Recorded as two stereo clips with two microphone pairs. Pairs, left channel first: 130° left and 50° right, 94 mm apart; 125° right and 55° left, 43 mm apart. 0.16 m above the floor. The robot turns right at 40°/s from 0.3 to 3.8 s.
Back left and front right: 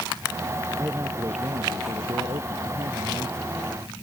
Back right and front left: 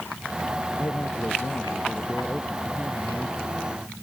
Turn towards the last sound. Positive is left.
turn(degrees=5)